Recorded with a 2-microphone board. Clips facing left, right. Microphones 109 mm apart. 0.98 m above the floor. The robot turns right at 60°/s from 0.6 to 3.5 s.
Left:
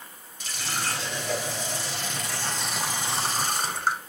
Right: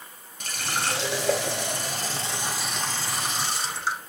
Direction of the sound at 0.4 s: 125° right.